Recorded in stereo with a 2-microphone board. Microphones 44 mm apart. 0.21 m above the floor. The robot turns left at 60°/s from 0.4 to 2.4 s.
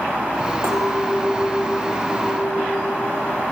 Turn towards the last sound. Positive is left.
turn(degrees=170)